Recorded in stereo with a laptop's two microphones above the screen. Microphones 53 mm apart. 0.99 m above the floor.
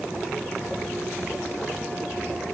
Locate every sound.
Only background noise.